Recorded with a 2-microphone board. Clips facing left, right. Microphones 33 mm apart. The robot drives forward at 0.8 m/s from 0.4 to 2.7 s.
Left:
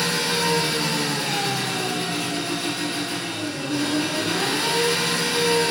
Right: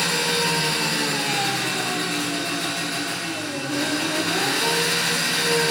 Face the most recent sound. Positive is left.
turn(degrees=-80)